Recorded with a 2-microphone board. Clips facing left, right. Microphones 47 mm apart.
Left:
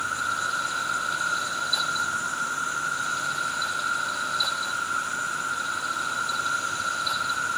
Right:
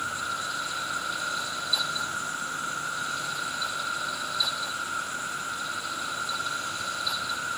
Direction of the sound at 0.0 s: 60° left (ahead or behind).